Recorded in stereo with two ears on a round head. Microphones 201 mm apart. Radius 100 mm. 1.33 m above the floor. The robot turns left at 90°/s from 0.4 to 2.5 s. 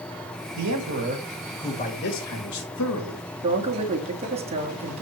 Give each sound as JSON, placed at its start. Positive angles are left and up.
{"t": 0.5, "sound": "a man speaking", "azimuth_deg": -95, "distance_m": 3.0}
{"t": 3.4, "sound": "a man speaking", "side_deg": -25, "distance_m": 2.0}